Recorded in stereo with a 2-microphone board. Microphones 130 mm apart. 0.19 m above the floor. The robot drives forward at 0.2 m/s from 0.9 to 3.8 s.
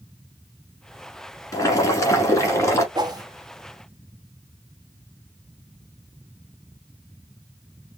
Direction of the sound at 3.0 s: 35° right (ahead or behind).